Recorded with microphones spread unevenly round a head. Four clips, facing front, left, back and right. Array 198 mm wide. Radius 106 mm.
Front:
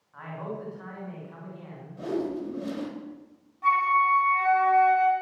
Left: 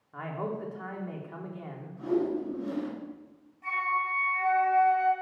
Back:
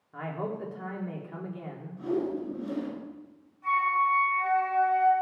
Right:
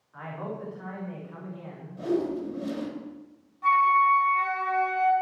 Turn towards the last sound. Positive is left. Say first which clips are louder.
# right 10 dB, front 3 dB
turn(degrees=-10)